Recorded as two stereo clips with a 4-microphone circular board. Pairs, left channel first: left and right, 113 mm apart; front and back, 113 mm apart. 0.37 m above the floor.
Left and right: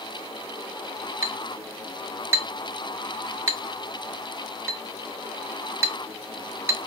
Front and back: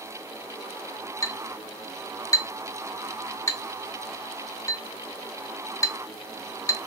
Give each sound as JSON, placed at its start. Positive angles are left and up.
{"t": 1.2, "sound": "a clink", "azimuth_deg": -40, "distance_m": 0.8}